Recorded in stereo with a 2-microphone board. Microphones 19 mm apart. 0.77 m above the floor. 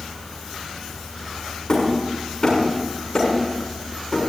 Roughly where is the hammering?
Left.